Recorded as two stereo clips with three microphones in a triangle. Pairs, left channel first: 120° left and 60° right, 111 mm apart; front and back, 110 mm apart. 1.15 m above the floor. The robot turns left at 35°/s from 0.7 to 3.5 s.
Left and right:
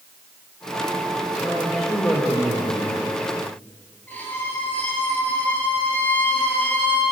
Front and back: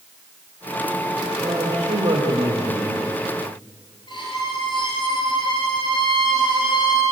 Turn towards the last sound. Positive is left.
turn(degrees=45)